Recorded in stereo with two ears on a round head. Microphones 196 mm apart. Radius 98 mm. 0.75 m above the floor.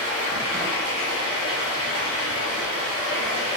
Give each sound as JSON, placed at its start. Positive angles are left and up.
{"t": 0.0, "sound": "running water", "side_deg": -65, "distance_m": 1.7}